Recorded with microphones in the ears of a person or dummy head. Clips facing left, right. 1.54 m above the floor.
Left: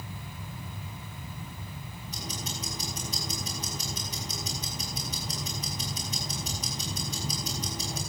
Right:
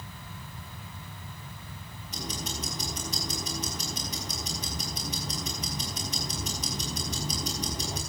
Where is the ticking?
50° right (ahead or behind), 4.5 m.